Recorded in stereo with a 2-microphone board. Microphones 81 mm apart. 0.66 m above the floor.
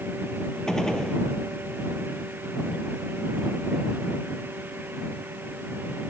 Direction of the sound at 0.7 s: 10° left (ahead or behind).